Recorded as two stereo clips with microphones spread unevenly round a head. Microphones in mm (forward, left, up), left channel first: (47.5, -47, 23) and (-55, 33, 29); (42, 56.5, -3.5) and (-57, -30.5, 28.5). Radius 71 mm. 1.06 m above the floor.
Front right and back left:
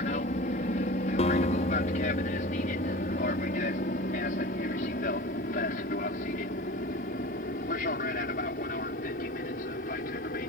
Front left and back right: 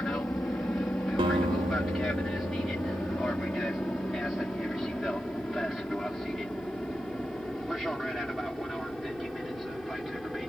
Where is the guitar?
80° right.